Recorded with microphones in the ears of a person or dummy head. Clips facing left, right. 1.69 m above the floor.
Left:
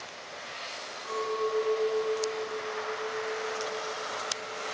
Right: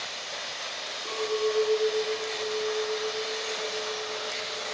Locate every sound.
1.1 s a clink: 20° right (ahead or behind), 0.9 m